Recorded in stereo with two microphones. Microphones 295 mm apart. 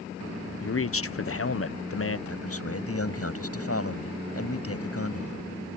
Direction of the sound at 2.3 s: 50° left (ahead or behind).